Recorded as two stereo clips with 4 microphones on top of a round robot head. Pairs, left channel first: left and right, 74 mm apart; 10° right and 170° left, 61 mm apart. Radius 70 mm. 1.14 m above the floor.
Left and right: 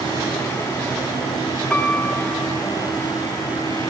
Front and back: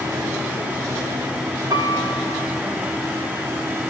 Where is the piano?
165° left, 0.7 m.